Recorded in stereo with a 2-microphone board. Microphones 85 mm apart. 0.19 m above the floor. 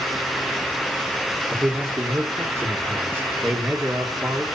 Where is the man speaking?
25° right (ahead or behind), 2.5 m.